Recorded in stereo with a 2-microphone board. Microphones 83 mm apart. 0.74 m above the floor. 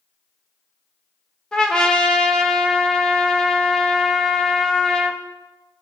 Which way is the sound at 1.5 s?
10° left (ahead or behind).